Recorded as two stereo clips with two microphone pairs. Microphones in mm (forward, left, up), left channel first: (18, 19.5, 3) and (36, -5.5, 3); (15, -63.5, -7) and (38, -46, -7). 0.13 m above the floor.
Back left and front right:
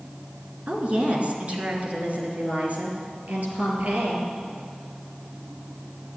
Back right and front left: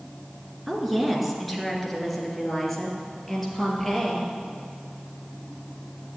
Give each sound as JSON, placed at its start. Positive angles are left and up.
{"t": 0.7, "sound": "a woman speaking", "azimuth_deg": -50, "distance_m": 2.0}